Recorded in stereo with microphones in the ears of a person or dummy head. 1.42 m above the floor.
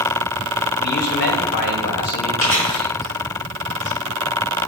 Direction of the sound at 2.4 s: 40° left (ahead or behind).